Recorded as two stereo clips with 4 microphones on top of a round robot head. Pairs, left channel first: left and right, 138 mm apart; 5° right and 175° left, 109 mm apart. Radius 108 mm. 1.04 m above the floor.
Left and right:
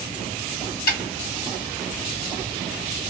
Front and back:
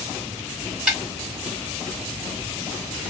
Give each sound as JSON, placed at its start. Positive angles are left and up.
{"t": 0.9, "sound": "a snare drum", "azimuth_deg": 95, "distance_m": 1.8}